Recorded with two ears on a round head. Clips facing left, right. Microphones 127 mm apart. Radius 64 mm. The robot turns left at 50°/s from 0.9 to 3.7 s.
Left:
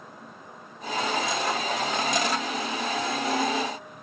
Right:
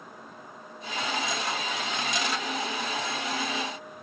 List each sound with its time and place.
Only background noise.